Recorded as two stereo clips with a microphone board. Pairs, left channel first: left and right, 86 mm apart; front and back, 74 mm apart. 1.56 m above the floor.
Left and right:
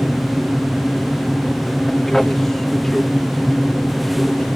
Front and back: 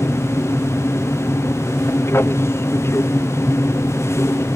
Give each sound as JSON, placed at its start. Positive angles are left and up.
{"t": 0.0, "sound": "an aircraft", "azimuth_deg": 5}